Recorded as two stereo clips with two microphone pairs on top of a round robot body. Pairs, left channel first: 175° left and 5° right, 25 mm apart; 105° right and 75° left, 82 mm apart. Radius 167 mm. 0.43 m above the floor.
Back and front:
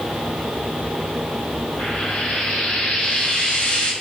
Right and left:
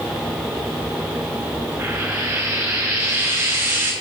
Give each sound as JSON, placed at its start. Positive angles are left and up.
{"t": 1.8, "sound": "frying", "azimuth_deg": 135, "distance_m": 7.0}